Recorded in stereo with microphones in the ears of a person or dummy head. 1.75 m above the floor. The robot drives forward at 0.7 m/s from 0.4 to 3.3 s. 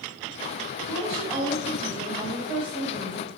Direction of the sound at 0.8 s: 35° right (ahead or behind).